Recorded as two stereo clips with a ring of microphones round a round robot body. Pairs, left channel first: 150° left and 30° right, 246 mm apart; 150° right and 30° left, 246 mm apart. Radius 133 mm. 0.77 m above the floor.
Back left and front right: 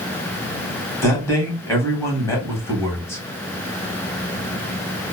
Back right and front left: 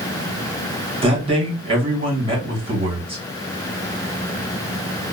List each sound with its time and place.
1.0 s a man speaking: 80° left, 1.2 m